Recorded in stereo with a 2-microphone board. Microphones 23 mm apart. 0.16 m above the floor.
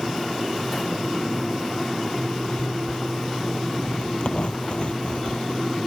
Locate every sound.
2.2 s a zipper: 55° left (ahead or behind)